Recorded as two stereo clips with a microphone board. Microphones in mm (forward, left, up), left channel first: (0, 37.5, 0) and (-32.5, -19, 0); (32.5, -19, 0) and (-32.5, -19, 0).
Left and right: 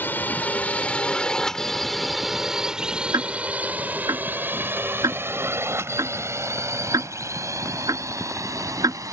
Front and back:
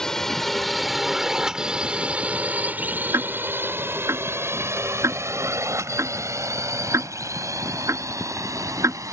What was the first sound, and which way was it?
A drone, 75° left.